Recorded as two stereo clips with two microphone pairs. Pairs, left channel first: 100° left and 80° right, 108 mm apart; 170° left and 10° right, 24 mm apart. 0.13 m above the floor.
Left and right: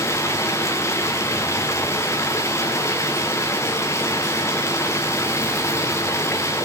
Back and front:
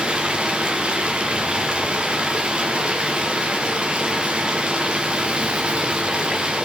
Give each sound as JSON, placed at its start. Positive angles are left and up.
{"t": 0.0, "sound": "running water", "azimuth_deg": 35, "distance_m": 2.5}